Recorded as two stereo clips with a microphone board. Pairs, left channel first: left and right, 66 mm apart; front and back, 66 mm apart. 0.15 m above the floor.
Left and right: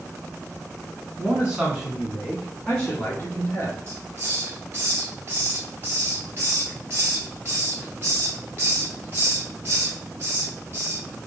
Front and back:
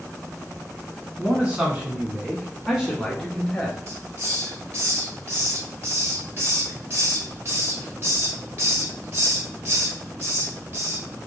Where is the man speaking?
135° right, 1.3 m; by 3.8 s 85° left, 1.4 m.